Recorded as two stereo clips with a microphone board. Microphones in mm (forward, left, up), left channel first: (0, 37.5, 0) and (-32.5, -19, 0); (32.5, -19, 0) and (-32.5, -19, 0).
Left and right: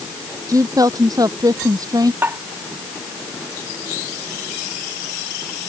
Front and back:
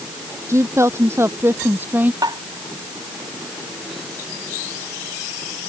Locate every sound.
0.5 s a woman speaking: 140° right; by 2.1 s 120° right
2.2 s tapping: 175° right